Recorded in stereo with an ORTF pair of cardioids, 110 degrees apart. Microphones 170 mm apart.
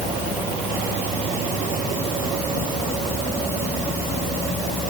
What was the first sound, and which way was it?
Only background noise.